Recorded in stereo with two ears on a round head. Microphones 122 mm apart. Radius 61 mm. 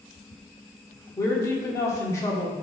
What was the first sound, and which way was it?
A woman speaking, 20° left (ahead or behind).